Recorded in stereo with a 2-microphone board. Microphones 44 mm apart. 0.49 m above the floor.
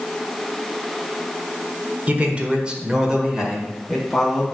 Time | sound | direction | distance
2.1 | a man speaking | 30° right (ahead or behind) | 1.6 m